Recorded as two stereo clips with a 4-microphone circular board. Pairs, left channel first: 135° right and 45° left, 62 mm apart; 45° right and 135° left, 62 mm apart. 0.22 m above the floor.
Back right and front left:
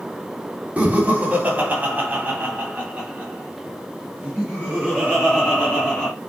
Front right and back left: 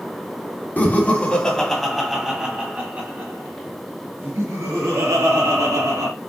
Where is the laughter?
5° right, 1.4 m; by 6.1 s 120° left, 2.5 m.